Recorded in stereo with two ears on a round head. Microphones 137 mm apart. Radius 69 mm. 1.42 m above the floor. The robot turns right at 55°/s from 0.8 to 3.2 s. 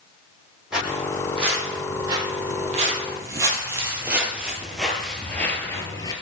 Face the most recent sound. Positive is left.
turn(degrees=25)  # may be behind; listen again after turning